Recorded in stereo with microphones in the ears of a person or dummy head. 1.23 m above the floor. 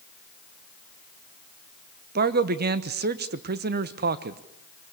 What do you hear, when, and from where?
2.1 s a man speaking: 45° right (ahead or behind), 1.0 m